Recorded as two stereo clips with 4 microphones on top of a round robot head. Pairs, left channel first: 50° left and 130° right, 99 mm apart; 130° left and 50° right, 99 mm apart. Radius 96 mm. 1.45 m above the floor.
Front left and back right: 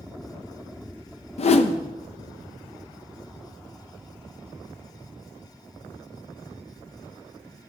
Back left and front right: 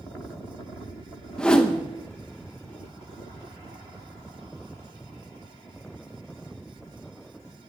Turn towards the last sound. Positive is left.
turn(degrees=50)